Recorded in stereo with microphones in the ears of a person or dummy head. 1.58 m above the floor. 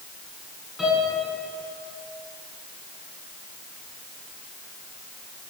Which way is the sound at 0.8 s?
Centre (ahead or behind).